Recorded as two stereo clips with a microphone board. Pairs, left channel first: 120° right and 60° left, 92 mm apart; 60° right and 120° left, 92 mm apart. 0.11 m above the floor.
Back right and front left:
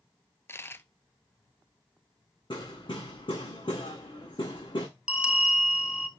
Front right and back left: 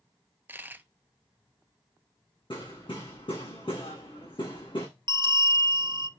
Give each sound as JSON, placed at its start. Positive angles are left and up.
{"t": 0.5, "sound": "a dropped coin", "azimuth_deg": -175, "distance_m": 0.7}
{"t": 2.5, "sound": "hammering", "azimuth_deg": -90, "distance_m": 7.5}
{"t": 5.1, "sound": "a bell", "azimuth_deg": 140, "distance_m": 0.7}